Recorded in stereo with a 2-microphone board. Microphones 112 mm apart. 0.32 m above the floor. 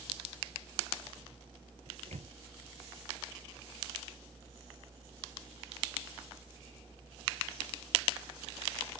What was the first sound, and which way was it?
A microwave, 75° right (ahead or behind).